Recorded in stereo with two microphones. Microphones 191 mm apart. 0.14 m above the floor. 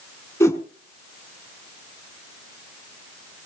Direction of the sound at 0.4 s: 15° left (ahead or behind).